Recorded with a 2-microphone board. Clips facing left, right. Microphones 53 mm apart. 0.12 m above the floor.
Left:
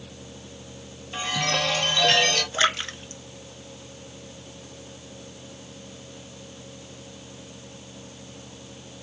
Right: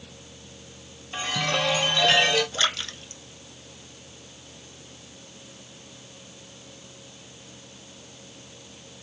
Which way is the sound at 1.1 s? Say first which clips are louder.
Even; 5° right (ahead or behind).